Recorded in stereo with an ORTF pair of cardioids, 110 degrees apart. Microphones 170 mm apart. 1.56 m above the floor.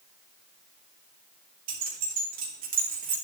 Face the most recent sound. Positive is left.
turn(degrees=-55)